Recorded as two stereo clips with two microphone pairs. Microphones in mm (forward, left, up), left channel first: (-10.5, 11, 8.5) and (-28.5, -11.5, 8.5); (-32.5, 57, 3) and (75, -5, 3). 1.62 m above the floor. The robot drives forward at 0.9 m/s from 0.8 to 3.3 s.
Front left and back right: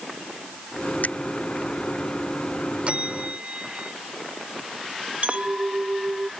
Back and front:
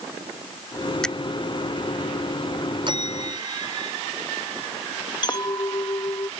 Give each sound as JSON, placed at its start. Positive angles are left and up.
{"t": 1.0, "sound": "a finger snap", "azimuth_deg": 65}
{"t": 2.9, "sound": "a bell", "azimuth_deg": -80}
{"t": 5.2, "sound": "a clink", "azimuth_deg": -160}